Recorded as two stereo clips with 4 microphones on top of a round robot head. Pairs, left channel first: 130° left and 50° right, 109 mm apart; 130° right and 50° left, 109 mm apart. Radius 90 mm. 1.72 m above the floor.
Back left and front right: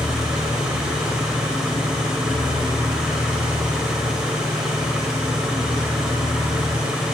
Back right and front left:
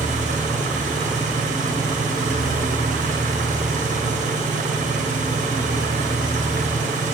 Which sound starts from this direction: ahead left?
An engine running, at 0.0 s.